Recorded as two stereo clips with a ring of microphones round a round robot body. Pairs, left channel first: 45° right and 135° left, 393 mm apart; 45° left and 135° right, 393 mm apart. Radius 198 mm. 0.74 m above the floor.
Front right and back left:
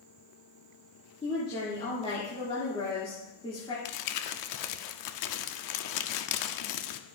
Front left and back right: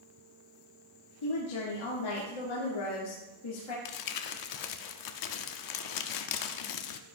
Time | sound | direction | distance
1.2 | a woman speaking | 30° left | 2.5 m
3.9 | crumpling | straight ahead | 0.7 m